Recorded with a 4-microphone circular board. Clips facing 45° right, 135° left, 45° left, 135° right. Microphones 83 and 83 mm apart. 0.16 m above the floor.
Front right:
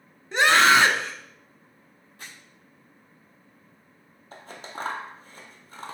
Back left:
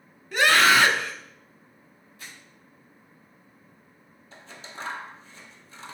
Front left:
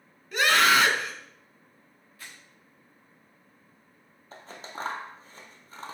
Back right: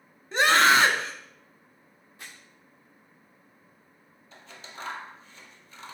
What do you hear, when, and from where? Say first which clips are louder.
0.3 s a scream: front right 1 dB, back right 2 dB; 95° right, 1.4 m
2.2 s crumpling: front right 1 dB, back right 1 dB; 70° right, 3.5 m
4.3 s scissors: front right 5 dB, front left 5 dB; 5° right, 0.7 m